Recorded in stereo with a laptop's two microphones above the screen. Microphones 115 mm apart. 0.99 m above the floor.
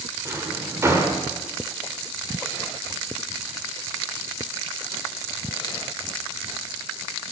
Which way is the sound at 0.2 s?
25° right (ahead or behind).